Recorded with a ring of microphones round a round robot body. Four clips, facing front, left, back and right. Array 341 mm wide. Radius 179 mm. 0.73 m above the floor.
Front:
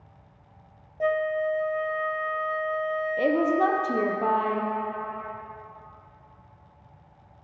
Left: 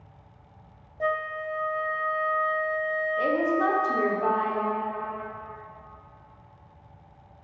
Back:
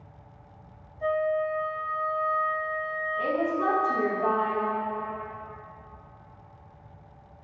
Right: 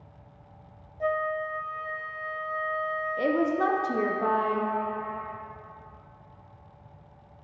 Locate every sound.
1.0 s a flute: 30° left, 0.6 m
3.2 s a woman speaking: 25° right, 0.9 m